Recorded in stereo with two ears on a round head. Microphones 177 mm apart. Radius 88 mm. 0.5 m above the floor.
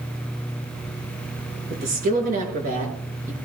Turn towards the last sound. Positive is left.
turn(degrees=-45)  # may be behind; listen again after turning